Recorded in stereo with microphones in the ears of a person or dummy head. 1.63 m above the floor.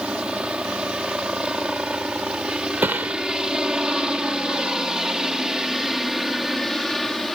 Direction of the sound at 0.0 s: 5° right (ahead or behind).